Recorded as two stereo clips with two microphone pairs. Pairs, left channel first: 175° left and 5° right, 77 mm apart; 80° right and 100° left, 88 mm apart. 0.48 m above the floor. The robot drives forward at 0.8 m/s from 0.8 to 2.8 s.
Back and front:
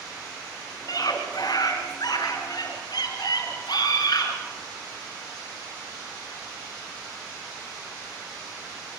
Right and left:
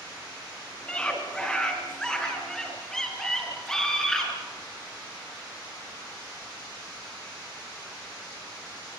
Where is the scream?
155° right, 4.5 m; by 4.3 s 160° right, 6 m.